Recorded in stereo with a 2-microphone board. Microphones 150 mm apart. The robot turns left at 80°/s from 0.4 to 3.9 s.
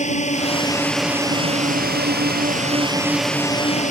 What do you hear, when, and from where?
0.0 s a drone: 50° left; by 3.9 s 130° left